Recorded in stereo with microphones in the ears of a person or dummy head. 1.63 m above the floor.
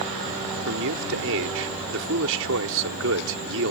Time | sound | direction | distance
0.7 | a man speaking | 70° right (ahead or behind) | ?